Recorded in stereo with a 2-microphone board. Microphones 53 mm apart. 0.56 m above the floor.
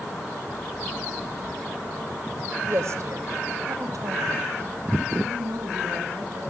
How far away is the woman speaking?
About 1.8 m.